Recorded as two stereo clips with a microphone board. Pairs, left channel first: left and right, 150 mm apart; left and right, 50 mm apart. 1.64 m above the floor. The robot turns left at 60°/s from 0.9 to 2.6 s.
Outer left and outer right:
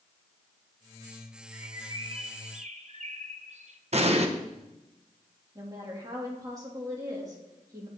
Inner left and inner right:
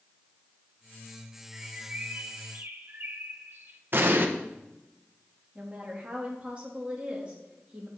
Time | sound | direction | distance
1.5 | a bird | 15° right | 1.0 m
3.9 | an explosion | 50° right (ahead or behind) | 1.1 m
5.5 | a woman speaking | 25° right (ahead or behind) | 3 m